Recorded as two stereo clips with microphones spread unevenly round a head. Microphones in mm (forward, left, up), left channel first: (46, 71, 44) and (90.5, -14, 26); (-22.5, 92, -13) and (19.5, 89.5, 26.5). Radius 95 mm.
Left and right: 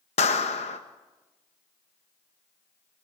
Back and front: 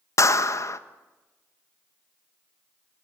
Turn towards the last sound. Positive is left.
turn(degrees=145)